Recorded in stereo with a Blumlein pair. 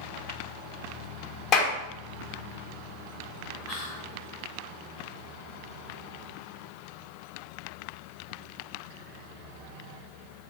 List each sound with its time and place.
1.5 s a clap: 35° left, 0.7 m
3.7 s whispering: 45° left, 1.5 m